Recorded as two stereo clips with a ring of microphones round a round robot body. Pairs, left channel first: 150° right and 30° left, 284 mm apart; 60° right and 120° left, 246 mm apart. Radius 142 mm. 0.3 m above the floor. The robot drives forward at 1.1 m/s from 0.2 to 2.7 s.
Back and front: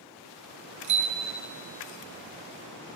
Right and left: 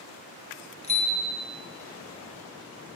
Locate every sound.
0.8 s a bicycle bell: 5° left, 3.5 m